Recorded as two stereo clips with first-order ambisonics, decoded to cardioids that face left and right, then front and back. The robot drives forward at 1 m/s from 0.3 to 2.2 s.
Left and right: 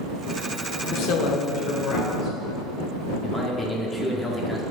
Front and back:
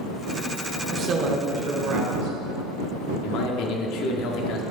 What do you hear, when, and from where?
0.9 s a woman speaking: 115° left, 1.1 m; by 2.4 s 150° left, 2.0 m
3.2 s a man speaking: 5° left, 1.1 m